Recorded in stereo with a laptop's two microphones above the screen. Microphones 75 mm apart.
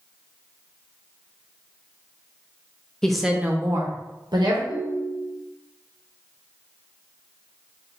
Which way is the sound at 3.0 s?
10° left (ahead or behind).